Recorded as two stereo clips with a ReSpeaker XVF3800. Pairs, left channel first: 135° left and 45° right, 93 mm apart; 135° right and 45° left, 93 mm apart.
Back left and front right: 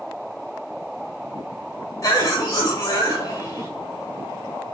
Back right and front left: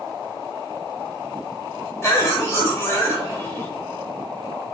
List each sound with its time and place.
2.0 s a cough: 170° left, 1.2 m